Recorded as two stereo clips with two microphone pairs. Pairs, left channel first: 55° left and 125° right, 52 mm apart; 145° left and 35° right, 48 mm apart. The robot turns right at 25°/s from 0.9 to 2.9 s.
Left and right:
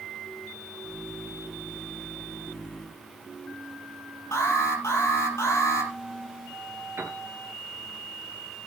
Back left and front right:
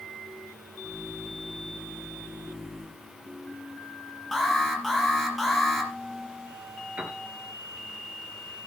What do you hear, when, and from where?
4.3 s an alarm: 55° left, 5.5 m
7.0 s a piano: 85° right, 3 m